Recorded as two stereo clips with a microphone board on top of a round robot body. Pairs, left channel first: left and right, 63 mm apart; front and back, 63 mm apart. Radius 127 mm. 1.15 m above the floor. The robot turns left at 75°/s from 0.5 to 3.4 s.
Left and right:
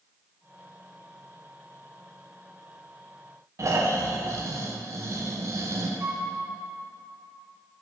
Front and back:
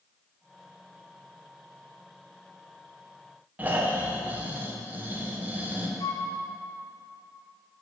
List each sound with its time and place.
3.6 s snoring: 120° right, 1.1 m
6.0 s a flute: 35° right, 1.2 m